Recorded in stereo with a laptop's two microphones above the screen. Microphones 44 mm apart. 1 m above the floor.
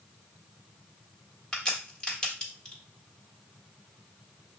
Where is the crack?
20° left (ahead or behind), 1.7 m.